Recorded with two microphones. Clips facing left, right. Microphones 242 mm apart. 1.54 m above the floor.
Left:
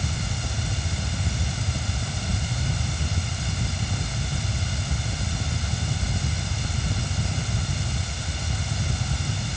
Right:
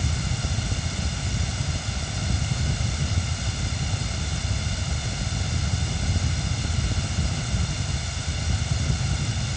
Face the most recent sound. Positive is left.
No sound to turn to.